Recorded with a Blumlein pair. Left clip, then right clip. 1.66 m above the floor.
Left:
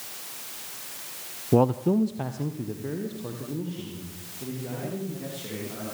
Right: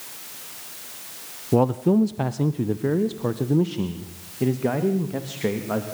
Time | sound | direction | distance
1.5 | a man speaking | straight ahead | 0.6 m